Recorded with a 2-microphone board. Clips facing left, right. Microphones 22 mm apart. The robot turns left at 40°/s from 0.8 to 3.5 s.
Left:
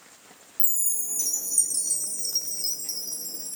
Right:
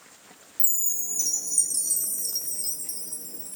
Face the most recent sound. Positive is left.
turn(degrees=115)